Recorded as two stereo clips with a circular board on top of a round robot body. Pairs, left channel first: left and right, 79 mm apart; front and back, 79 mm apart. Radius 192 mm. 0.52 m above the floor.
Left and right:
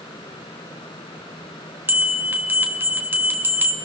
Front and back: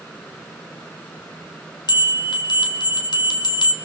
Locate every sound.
1.9 s a bell: 25° right, 2.5 m